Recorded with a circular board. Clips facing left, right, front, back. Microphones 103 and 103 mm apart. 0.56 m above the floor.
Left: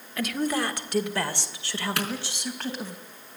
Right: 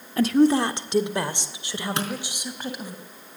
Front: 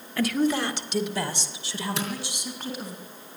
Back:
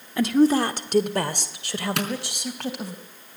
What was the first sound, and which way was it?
A woman speaking, 125° right.